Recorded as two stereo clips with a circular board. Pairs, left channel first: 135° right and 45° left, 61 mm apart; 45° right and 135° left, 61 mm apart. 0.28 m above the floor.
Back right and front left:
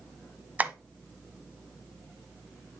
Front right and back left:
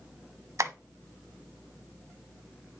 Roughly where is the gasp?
No gasp in this recording.